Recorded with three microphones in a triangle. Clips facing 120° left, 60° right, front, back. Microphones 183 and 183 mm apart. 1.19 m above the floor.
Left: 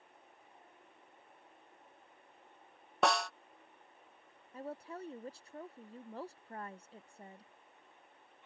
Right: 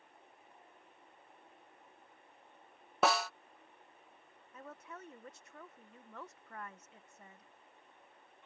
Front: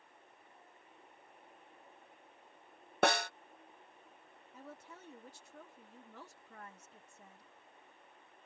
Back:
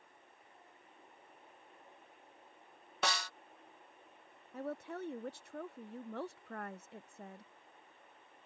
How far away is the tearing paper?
No tearing paper in this recording.